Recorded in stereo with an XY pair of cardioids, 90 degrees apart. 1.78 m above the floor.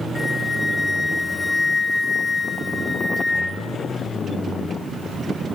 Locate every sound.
0.1 s a flute: 25° left, 1.6 m